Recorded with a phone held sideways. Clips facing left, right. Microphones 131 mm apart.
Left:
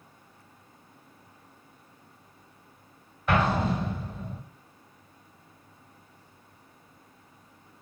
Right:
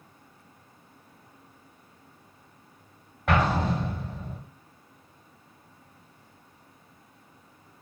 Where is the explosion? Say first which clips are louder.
Even; 70° right (ahead or behind), 1.3 m.